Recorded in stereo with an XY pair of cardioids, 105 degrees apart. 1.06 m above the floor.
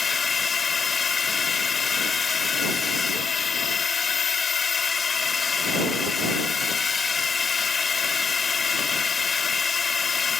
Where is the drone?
35° left.